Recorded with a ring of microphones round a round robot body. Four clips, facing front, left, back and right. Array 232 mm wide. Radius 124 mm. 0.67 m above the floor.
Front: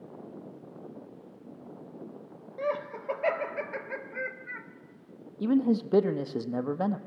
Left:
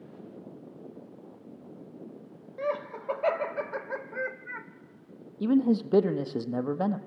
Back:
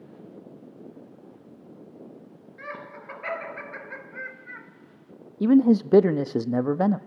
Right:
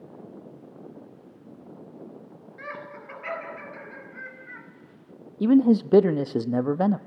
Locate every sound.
2.6 s laughter: 45° left, 3.5 m; by 4.7 s 80° left, 2.5 m
5.4 s a man speaking: 140° right, 1.0 m